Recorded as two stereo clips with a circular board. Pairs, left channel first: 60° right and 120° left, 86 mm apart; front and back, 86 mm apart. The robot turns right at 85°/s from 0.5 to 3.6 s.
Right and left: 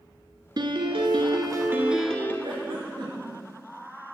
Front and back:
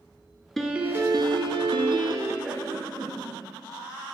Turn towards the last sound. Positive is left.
turn(degrees=-165)